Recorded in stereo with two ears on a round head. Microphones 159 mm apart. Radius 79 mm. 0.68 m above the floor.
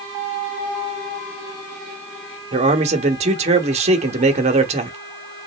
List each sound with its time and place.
2.5 s a man speaking: 40° right (ahead or behind), 1.2 m